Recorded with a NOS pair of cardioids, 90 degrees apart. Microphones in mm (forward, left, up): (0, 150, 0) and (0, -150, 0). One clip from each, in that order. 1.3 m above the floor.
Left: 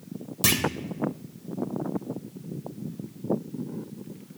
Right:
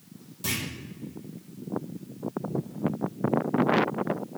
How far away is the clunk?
About 1.0 m.